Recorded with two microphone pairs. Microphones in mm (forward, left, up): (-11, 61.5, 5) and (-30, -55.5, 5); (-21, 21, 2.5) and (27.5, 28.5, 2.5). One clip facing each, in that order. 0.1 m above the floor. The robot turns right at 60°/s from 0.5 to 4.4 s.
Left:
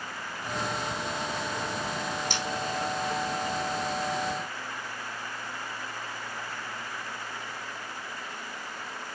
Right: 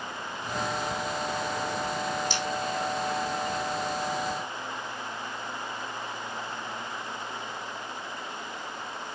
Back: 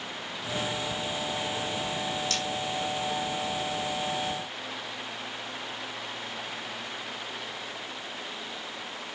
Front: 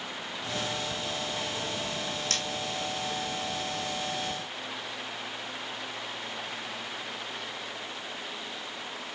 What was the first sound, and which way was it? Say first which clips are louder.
Cutlery clinking: right 2 dB, back 2 dB; 45° left.